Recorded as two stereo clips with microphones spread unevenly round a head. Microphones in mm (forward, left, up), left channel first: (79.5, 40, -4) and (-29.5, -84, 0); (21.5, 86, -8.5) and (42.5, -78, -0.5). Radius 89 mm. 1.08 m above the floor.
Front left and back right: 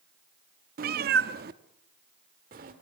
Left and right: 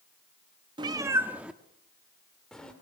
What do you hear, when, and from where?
0.8 s a cat meowing: 140° right, 0.5 m; by 2.7 s 175° right, 1.8 m